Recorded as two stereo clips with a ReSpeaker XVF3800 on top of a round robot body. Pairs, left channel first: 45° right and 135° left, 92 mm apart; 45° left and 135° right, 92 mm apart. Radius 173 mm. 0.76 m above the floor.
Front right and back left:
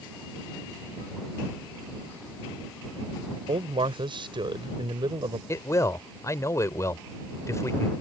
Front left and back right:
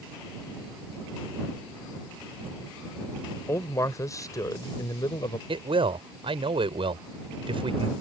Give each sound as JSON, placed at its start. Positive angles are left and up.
{"t": 3.5, "sound": "a man speaking", "azimuth_deg": 105}
{"t": 5.5, "sound": "a man speaking", "azimuth_deg": -105}